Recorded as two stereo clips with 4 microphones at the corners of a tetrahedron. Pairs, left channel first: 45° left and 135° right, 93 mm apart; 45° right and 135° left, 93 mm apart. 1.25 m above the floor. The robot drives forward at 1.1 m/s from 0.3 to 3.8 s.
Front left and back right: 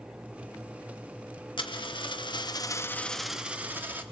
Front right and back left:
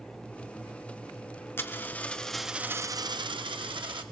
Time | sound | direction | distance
1.6 | a dropped coin | 20° left | 1.5 m